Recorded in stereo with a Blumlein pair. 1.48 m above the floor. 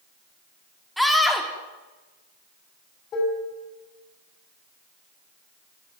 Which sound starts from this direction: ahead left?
Dishes clattering, at 3.1 s.